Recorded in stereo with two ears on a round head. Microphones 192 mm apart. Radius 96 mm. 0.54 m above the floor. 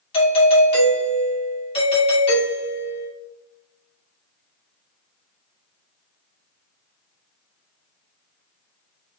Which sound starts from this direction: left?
A doorbell, at 0.1 s.